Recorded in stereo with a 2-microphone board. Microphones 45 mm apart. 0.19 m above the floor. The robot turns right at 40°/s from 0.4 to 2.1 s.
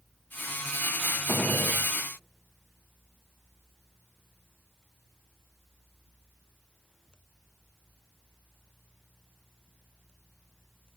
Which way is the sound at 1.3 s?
35° left (ahead or behind).